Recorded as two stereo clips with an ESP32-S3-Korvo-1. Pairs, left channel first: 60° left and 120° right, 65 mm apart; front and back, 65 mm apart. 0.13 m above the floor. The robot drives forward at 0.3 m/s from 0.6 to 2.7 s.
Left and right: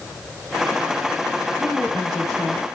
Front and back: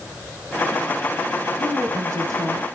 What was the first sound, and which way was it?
A woman speaking, 145° left.